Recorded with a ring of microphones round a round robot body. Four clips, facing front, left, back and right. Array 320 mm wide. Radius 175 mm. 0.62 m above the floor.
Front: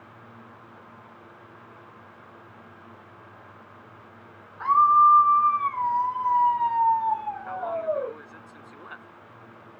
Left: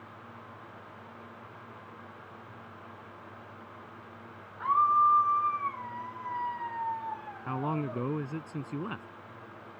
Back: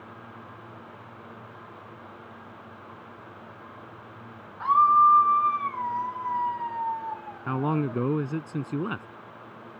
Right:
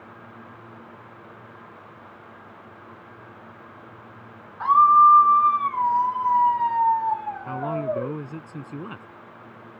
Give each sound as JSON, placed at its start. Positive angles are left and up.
{"t": 4.6, "sound": "a scream", "azimuth_deg": -85}
{"t": 7.5, "sound": "a man speaking", "azimuth_deg": 180}